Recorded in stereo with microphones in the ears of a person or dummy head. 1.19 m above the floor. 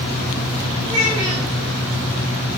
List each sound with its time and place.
0.8 s a child speaking: 30° left (ahead or behind), 3 m